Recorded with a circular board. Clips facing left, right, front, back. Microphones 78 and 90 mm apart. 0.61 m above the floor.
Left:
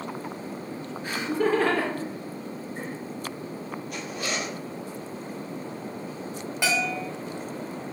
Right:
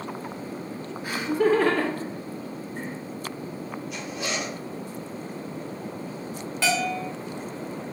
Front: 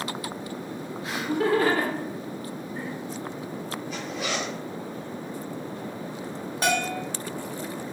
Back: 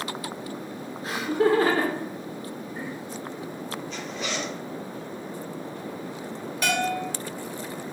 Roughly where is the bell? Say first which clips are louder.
Right 2 dB, even; ahead left.